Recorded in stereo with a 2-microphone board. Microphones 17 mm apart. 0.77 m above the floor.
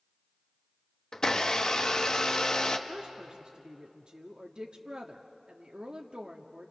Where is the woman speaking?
60° right (ahead or behind), 1.2 m.